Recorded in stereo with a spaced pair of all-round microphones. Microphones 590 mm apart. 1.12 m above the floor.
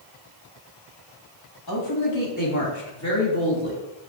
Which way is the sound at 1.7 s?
40° left (ahead or behind).